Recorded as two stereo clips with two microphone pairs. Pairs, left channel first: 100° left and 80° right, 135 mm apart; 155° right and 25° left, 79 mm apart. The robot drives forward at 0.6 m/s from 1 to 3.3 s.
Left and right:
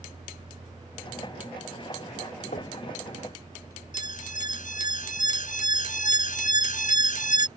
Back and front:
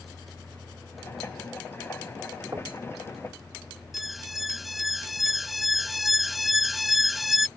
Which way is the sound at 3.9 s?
110° left.